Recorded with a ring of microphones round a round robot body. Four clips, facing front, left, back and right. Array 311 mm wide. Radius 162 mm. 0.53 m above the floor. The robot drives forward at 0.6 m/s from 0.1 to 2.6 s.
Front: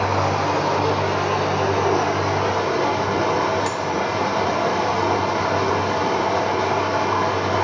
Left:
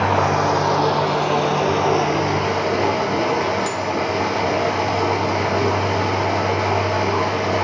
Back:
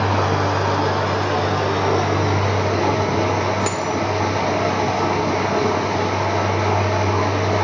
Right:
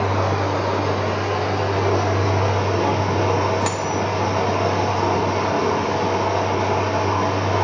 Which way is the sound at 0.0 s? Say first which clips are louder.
Left 4 dB, back 1 dB; 100° left.